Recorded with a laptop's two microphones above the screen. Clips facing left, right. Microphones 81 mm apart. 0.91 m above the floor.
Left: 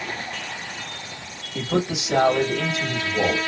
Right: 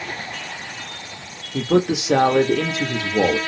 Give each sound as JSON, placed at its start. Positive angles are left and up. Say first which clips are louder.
{"t": 1.5, "sound": "a man speaking", "louder": "right 6 dB", "side_deg": -65, "distance_m": 1.2}